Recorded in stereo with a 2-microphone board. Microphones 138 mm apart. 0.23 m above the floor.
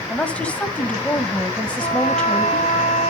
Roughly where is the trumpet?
Left.